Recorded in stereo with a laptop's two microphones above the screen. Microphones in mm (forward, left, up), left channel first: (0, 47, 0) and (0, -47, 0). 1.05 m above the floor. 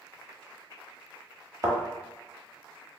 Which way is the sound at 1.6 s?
40° right (ahead or behind).